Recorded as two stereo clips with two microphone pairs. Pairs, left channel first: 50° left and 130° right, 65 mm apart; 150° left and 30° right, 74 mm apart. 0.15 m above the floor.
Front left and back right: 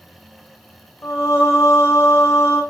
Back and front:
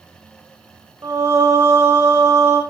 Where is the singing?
5° left, 2.5 m.